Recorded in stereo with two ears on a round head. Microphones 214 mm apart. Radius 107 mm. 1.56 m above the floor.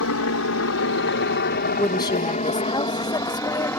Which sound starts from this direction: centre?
A woman speaking, at 1.8 s.